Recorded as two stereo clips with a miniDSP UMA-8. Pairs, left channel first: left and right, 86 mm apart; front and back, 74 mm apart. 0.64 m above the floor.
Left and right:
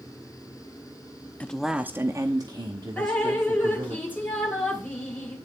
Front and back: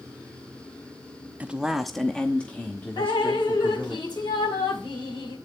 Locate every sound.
1.4 s a man speaking: 140° left, 0.7 m; by 4.0 s 65° right, 2 m
3.0 s dripping: 20° left, 2 m